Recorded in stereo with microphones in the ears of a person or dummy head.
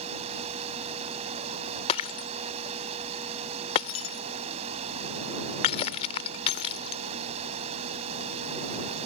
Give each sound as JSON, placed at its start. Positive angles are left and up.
{"t": 0.0, "sound": "running water", "side_deg": -40}
{"t": 1.9, "sound": "breaking glass", "side_deg": 20}